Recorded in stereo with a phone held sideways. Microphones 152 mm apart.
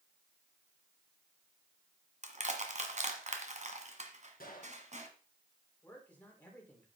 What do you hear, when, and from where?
2.2 s crushing: 50° right (ahead or behind), 1.6 m
4.4 s a gunshot: 75° left (ahead or behind), 2.5 m
5.8 s a man speaking: 10° left (ahead or behind), 4.5 m